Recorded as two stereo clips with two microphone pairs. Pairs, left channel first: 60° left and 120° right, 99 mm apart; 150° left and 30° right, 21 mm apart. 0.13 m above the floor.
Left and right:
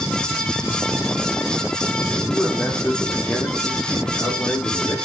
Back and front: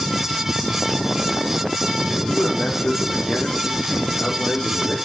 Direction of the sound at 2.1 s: 135° left.